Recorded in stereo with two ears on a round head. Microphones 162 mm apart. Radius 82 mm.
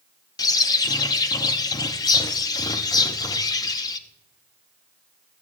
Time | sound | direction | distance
0.4 | a bird | 20° left (ahead or behind) | 0.6 m